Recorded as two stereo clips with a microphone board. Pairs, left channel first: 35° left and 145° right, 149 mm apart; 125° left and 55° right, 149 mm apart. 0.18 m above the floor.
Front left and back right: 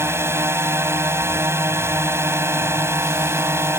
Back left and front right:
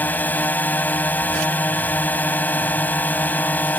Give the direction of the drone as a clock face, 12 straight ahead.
6 o'clock.